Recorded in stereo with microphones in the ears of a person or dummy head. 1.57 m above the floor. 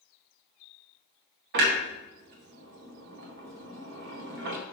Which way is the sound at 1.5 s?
50° right (ahead or behind).